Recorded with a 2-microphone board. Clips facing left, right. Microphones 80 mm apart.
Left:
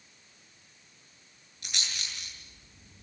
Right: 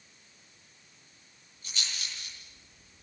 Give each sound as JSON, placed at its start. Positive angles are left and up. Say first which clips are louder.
{"t": 1.6, "sound": "a rattle", "louder": "left 1 dB", "side_deg": 85, "distance_m": 9.0}